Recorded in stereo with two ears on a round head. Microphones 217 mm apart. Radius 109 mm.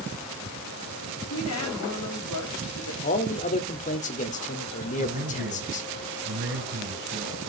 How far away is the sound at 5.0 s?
About 5 m.